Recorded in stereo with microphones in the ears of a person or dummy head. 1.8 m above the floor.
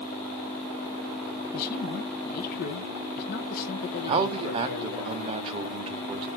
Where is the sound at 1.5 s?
50° left (ahead or behind), 1.5 m.